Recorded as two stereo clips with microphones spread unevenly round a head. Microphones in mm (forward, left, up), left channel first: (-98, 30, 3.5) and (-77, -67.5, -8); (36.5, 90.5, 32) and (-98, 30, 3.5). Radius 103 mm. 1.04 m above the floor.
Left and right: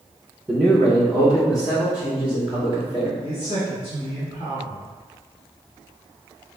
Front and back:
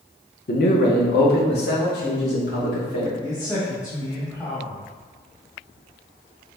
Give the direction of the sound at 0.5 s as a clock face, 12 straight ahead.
12 o'clock.